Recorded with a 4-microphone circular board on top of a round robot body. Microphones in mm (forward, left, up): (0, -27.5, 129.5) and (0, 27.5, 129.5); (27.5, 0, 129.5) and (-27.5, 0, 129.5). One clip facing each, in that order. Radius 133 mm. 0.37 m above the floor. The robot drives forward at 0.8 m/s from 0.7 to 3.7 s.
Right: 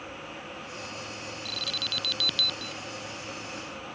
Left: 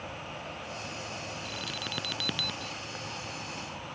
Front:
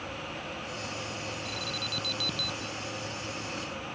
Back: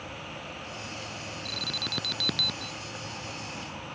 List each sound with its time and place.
0.0 s an insect: 105° left; by 4.0 s 130° left
1.4 s an alarm: 160° left; by 2.7 s 165° left